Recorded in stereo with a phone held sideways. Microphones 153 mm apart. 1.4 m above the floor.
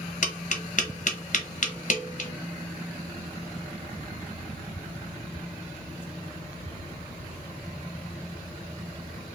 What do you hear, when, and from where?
0.2 s tapping: 55° left (ahead or behind), 0.9 m